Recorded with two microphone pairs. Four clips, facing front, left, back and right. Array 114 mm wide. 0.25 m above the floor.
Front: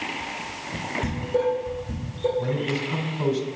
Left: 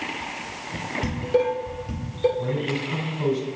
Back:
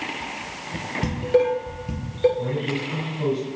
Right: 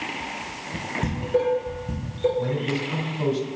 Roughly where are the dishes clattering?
Behind.